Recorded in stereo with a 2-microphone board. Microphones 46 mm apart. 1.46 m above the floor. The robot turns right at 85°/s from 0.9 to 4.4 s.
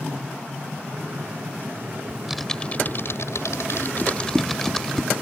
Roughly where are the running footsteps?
Left.